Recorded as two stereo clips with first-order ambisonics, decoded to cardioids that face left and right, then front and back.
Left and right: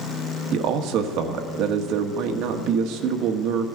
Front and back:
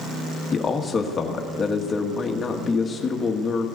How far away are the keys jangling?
I don't hear keys jangling.